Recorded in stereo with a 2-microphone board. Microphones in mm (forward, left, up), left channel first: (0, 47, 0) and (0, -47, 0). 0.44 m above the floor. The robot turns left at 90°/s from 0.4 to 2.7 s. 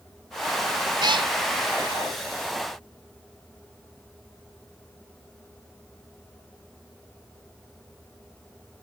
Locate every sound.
1.0 s a cat meowing: 50° right (ahead or behind), 0.6 m; by 1.3 s 70° right (ahead or behind), 0.6 m